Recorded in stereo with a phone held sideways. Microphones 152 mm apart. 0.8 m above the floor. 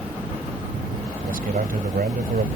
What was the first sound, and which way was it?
A man speaking, 70° right (ahead or behind).